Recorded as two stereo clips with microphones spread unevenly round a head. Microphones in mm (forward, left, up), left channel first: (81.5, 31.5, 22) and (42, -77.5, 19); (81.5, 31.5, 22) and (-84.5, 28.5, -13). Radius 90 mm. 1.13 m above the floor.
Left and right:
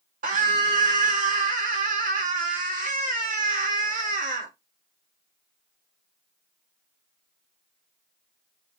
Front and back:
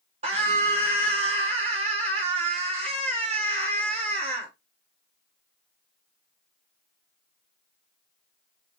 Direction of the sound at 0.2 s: 120° right.